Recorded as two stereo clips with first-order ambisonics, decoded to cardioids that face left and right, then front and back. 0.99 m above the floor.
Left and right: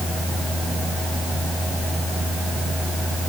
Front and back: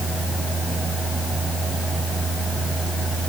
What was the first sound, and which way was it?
Only background noise.